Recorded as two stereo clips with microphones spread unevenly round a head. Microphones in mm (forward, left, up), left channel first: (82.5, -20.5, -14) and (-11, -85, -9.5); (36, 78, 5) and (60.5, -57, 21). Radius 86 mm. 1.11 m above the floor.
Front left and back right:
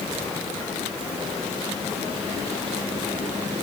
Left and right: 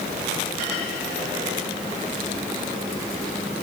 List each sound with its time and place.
Only background noise.